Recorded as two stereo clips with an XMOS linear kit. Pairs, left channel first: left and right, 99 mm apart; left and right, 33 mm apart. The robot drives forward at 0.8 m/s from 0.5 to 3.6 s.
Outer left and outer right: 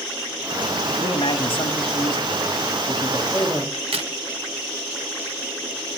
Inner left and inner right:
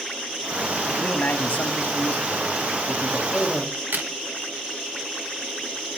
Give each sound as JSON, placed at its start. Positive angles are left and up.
{"t": 0.9, "sound": "a man speaking", "side_deg": 60, "distance_m": 1.6}
{"t": 3.7, "sound": "a crack", "side_deg": -90, "distance_m": 1.6}